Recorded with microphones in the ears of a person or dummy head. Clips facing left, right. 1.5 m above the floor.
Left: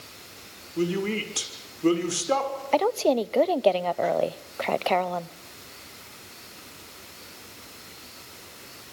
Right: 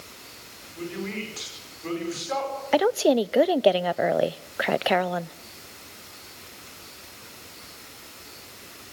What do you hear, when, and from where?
0.8 s a woman speaking: 50° left (ahead or behind), 6 m
2.7 s a woman speaking: 15° right (ahead or behind), 0.6 m